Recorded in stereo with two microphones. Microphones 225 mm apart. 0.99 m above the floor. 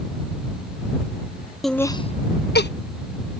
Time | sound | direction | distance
1.6 | laughter | centre (ahead or behind) | ?